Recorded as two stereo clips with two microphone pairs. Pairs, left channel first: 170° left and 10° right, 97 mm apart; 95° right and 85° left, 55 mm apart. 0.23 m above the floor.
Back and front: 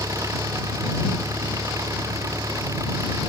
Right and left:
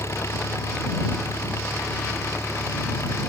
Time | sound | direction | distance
0.0 | an engine running | 65° right | ?